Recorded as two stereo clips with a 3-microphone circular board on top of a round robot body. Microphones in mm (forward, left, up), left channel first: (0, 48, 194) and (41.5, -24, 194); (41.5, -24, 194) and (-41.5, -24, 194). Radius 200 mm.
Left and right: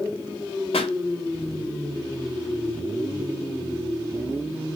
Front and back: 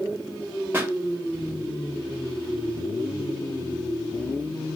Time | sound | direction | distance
0.7 | a pop | 110° left | 0.8 m